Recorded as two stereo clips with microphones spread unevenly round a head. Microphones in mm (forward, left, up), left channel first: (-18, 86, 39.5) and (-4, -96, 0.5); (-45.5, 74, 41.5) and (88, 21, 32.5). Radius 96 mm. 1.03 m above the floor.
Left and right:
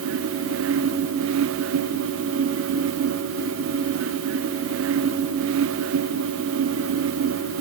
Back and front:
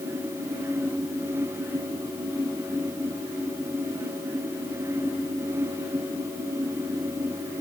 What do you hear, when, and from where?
Only background noise.